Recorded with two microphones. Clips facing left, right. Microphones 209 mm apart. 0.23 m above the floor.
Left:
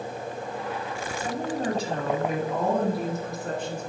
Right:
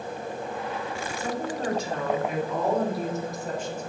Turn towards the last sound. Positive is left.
turn(degrees=65)  # may be behind; listen again after turning